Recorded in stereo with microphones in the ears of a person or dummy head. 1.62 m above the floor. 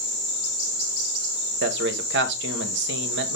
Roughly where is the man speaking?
Right.